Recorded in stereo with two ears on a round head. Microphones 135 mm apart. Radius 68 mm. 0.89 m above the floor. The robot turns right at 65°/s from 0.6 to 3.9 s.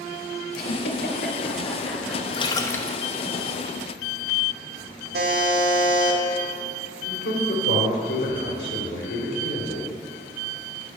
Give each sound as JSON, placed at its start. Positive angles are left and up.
{"t": 0.5, "sound": "a giggle", "side_deg": 75, "distance_m": 3.0}
{"t": 2.3, "sound": "a splash", "azimuth_deg": 135, "distance_m": 0.8}
{"t": 5.1, "sound": "a buzzer", "side_deg": -75, "distance_m": 1.8}
{"t": 7.0, "sound": "a man speaking", "side_deg": 75, "distance_m": 3.0}